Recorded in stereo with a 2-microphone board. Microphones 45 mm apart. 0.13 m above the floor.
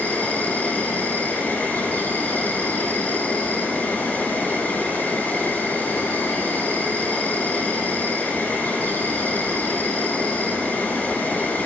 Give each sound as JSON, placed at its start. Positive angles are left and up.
{"t": 0.0, "sound": "an insect", "side_deg": 40, "distance_m": 4.0}